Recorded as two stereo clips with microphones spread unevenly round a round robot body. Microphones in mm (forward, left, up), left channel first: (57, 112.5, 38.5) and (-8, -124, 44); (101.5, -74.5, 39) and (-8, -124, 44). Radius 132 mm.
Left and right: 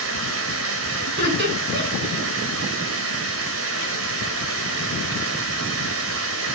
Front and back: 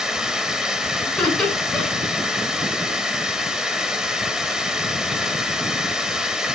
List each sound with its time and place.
0.0 s running water: 70° right, 3 m
1.1 s laughter: 60° right, 9.5 m